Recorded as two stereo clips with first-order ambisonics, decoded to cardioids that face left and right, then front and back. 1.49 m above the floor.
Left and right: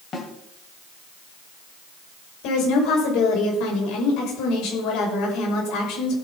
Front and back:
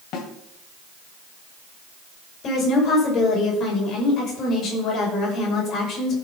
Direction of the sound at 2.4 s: 60° left.